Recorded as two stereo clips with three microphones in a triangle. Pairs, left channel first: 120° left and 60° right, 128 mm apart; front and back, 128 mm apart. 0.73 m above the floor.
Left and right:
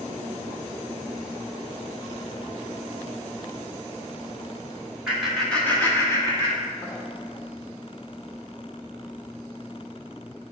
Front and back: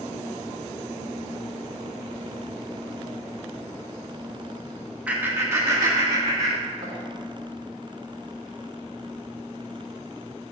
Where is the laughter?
130° right, 1.0 m; by 7.0 s 165° left, 1.7 m.